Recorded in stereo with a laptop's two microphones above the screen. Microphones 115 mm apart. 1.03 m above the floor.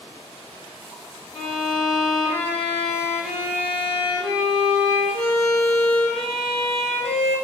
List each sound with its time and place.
1.3 s a violin: 70° left (ahead or behind), 1.7 m